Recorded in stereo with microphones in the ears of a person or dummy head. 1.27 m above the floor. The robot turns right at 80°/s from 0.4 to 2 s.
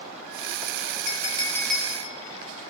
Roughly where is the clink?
Behind left.